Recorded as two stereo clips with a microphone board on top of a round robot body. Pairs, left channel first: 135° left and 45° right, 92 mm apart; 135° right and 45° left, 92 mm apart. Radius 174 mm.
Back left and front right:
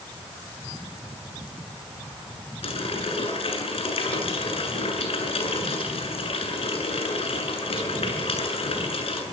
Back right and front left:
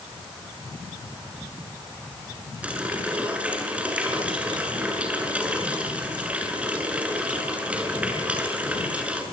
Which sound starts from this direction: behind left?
A running tap, at 2.6 s.